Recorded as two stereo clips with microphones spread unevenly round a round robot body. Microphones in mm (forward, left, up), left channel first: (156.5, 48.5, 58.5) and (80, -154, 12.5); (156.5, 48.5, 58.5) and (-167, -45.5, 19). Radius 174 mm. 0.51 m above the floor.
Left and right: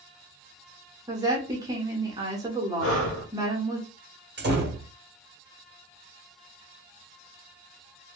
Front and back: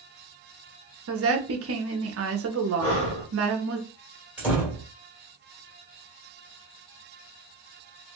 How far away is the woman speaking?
About 1.0 m.